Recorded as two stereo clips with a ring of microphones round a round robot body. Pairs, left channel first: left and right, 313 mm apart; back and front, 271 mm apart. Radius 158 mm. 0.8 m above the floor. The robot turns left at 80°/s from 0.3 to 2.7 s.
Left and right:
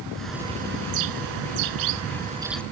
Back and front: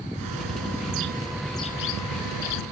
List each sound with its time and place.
0.1 s a bird: straight ahead; by 2.6 s 175° left